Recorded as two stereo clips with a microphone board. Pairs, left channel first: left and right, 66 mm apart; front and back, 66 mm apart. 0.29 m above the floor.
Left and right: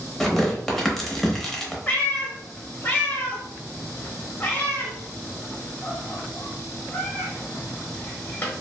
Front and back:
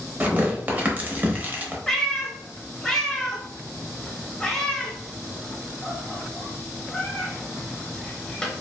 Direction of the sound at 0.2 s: 165° left.